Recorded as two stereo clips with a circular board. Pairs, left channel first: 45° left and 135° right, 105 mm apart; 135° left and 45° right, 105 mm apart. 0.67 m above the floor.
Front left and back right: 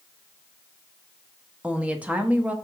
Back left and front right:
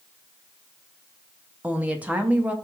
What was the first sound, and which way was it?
A woman speaking, 90° right.